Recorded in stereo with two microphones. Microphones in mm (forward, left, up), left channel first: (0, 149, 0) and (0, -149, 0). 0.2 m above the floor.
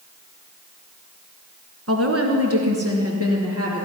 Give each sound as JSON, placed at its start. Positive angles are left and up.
{"t": 1.9, "sound": "a woman speaking", "side_deg": -50, "distance_m": 1.9}